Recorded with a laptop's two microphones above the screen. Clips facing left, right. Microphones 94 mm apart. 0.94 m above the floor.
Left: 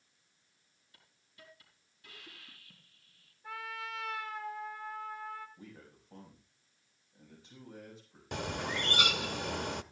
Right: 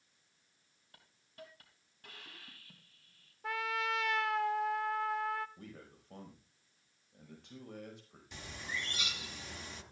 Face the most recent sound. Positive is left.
turn(degrees=65)  # may be behind; listen again after turning